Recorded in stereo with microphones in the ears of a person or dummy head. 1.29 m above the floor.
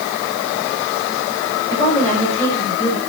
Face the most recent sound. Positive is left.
turn(degrees=25)  # may be behind; listen again after turning